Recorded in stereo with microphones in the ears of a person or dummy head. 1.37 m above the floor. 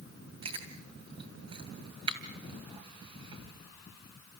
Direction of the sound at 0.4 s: 25° right (ahead or behind).